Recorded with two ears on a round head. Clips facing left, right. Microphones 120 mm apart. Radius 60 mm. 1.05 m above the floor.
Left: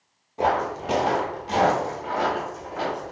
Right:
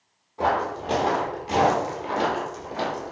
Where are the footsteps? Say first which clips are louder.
Left 1 dB; 20° left (ahead or behind), 1.1 m; by 3.1 s 45° right (ahead or behind), 1.4 m.